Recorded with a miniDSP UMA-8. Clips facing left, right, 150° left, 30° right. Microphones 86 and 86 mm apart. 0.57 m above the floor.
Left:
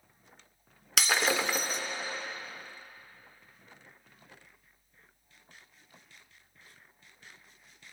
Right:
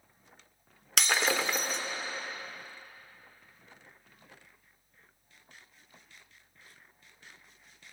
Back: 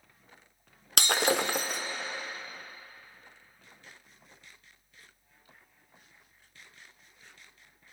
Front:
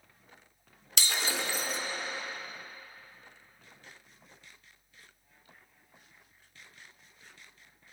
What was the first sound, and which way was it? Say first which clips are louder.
Breaking glass: left 1 dB, back 7 dB; straight behind.